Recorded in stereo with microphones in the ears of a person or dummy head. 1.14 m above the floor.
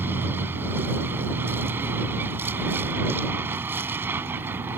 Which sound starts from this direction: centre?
A vehicle, at 0.0 s.